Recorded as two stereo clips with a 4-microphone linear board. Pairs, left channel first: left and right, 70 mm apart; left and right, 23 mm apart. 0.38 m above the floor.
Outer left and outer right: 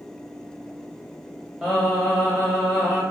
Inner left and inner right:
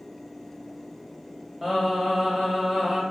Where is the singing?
5° right (ahead or behind), 1.2 m.